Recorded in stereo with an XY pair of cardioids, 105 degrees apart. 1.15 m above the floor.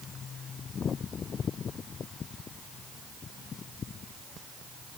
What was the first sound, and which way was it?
Only background noise.